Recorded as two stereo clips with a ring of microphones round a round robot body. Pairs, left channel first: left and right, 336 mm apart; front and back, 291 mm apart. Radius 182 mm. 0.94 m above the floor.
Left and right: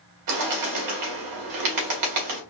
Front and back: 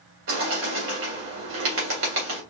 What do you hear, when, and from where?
0.3 s a bird: 125° right, 2 m